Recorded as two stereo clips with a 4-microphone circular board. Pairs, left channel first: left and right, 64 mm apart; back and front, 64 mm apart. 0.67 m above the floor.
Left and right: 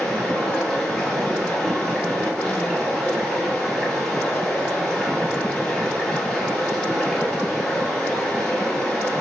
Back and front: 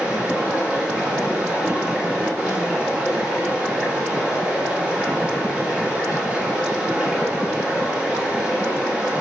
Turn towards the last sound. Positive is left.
turn(degrees=35)